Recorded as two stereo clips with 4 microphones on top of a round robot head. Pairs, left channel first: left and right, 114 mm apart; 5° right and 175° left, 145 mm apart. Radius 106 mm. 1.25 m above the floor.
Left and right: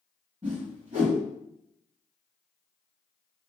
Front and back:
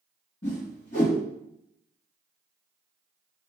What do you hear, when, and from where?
0.4 s a whoosh: 45° right, 1.5 m